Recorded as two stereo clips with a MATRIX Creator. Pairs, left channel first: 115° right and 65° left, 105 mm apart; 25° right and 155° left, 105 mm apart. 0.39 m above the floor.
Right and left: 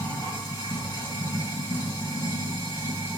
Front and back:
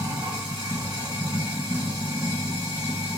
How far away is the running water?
About 1.9 m.